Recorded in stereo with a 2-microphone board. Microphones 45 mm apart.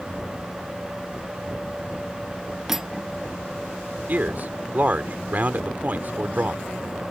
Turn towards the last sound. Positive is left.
turn(degrees=-40)  # may be behind; listen again after turning